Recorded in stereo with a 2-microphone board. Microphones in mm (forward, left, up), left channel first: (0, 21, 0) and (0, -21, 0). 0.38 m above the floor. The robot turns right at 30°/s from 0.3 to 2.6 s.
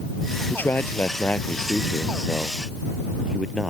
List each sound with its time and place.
0.5 s a man speaking: 50° left (ahead or behind); by 3.7 s 10° right (ahead or behind)